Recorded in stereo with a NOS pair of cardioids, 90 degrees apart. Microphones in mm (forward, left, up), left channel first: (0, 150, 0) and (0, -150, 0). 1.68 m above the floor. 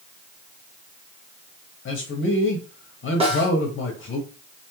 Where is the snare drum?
20° right, 1.4 m.